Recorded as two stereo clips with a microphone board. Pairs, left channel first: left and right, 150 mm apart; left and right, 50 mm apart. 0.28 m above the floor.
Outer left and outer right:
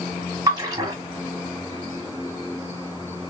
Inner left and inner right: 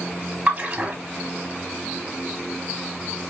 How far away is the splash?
About 2.5 m.